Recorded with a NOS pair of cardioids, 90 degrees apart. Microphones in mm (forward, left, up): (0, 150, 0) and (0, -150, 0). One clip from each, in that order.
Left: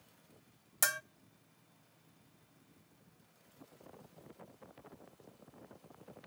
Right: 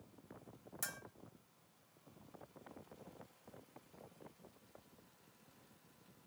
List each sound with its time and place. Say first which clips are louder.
0.8 s a bell: left 13 dB; 55° left, 0.5 m